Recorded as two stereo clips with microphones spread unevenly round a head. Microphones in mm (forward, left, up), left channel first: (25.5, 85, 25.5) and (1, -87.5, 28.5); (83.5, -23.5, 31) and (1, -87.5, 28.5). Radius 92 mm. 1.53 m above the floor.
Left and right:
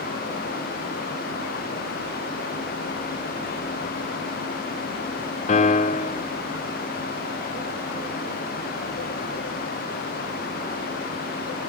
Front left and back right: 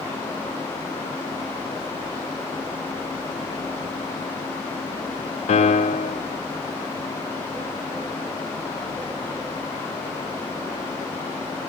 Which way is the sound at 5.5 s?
30° left.